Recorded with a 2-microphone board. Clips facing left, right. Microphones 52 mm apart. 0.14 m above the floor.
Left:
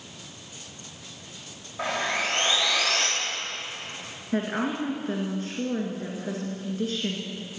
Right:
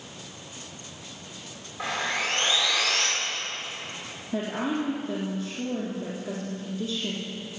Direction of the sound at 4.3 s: 45° left (ahead or behind).